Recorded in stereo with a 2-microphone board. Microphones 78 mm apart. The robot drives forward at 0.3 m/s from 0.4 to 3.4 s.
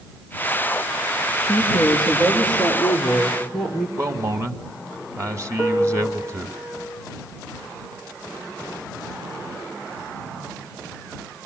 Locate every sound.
1.4 s a woman speaking: 5° left (ahead or behind), 5 m
4.0 s a man speaking: 40° right (ahead or behind), 1.3 m
5.6 s a piano: 25° right (ahead or behind), 9 m